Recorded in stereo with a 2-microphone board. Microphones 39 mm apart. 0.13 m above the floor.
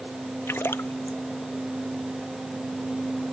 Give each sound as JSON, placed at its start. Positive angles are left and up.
{"t": 0.5, "sound": "a splash", "side_deg": 75}